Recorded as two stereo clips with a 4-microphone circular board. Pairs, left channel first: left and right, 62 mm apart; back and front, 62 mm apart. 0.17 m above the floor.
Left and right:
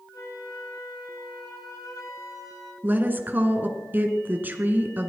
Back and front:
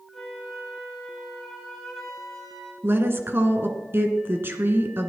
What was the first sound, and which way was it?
A flute, 95° left.